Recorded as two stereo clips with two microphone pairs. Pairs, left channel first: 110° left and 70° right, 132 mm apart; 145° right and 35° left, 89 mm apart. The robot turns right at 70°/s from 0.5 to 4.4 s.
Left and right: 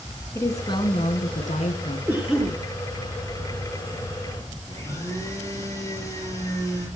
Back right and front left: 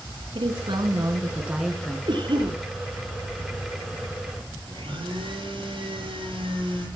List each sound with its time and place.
0.3 s a woman speaking: 40° left, 3.5 m; by 2.0 s 145° left, 3.5 m
2.1 s a cough: straight ahead, 5.5 m; by 2.6 s 40° left, 5.5 m
4.7 s a blender: 40° left, 8 m